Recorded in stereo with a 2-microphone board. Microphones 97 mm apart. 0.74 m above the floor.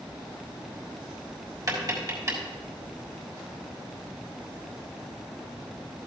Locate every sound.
1.7 s tapping: 40° right (ahead or behind), 3.5 m